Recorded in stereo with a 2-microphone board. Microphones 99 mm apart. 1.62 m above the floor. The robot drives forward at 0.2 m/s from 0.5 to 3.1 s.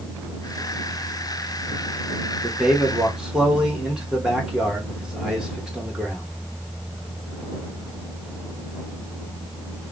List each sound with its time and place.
2.4 s a man speaking: 10° right (ahead or behind), 1.0 m